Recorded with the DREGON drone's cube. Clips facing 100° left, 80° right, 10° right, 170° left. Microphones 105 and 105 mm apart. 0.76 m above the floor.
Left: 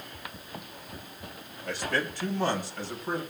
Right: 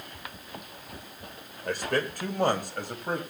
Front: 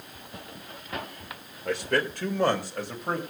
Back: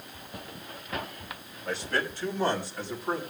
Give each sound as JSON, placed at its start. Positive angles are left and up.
{"t": 1.6, "sound": "a man speaking", "azimuth_deg": -40, "distance_m": 3.0}